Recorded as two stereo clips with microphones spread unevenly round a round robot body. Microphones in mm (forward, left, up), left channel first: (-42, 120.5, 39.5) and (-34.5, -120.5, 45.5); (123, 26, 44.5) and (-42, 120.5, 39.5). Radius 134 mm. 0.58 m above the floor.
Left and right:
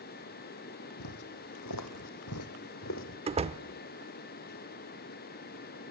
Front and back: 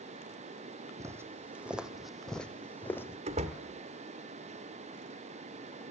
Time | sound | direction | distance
1.0 | footsteps | 75° left | 2.0 m
3.3 | a door slam | 150° right | 1.3 m